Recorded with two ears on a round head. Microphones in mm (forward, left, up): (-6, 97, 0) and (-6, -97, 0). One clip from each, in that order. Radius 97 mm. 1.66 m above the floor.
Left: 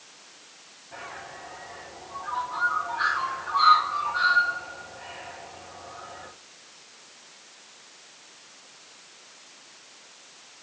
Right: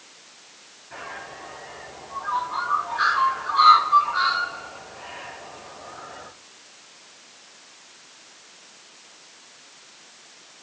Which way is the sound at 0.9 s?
65° right (ahead or behind).